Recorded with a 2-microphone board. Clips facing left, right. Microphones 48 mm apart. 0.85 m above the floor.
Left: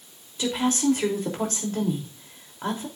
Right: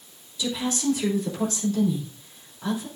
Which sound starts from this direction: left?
A woman speaking, at 0.4 s.